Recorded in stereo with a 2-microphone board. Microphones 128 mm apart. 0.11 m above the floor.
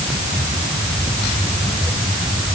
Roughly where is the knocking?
I don't hear knocking.